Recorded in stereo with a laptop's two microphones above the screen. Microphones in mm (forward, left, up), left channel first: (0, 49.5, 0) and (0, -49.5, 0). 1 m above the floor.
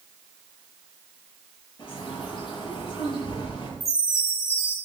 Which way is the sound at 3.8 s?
75° left (ahead or behind).